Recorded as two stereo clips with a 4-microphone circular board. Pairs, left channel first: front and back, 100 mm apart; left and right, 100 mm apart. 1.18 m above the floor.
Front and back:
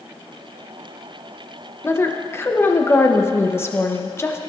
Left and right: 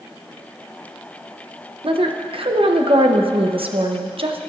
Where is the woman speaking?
65° right, 0.7 m.